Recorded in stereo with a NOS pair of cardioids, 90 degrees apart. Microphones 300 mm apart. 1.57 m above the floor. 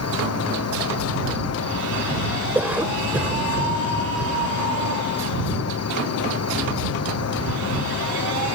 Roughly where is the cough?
Ahead.